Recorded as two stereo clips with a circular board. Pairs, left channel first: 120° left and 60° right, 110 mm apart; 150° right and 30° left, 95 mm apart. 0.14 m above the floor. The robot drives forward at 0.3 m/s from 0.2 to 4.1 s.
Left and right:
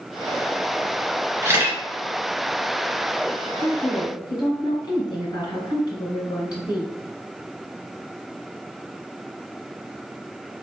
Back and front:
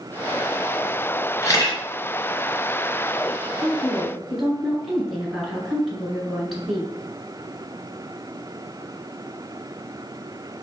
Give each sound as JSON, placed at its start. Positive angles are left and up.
{"t": 1.4, "sound": "a camera shutter", "azimuth_deg": -115, "distance_m": 1.7}
{"t": 3.6, "sound": "a woman speaking", "azimuth_deg": 115, "distance_m": 1.9}